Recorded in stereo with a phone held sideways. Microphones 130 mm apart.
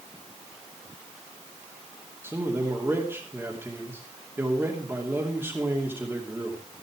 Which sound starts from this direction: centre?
A man speaking, at 2.2 s.